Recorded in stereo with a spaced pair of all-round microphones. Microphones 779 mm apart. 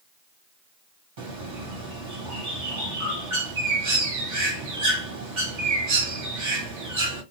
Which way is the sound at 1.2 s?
70° right (ahead or behind).